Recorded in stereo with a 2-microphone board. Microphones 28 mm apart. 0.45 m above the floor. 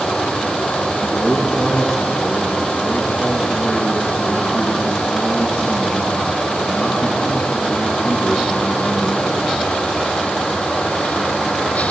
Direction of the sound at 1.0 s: 80° left.